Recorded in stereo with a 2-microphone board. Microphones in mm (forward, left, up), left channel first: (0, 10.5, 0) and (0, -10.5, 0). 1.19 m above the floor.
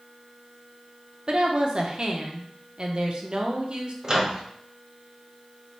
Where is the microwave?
30° right (ahead or behind), 0.6 m.